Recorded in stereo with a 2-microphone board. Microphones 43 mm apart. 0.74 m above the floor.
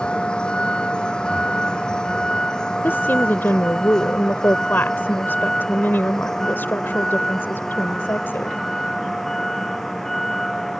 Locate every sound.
0.0 s a vehicle: 25° left (ahead or behind); by 10.8 s 5° left (ahead or behind)
2.8 s a woman speaking: 60° left (ahead or behind)